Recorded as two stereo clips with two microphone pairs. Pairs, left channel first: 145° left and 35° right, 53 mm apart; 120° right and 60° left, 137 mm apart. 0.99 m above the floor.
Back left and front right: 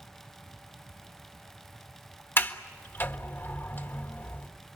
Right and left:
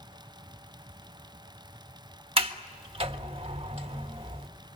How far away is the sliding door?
About 1.4 m.